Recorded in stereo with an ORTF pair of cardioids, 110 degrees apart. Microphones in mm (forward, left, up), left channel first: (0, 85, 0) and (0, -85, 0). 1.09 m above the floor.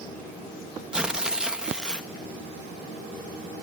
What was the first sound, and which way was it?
Tearing paper, 5° right.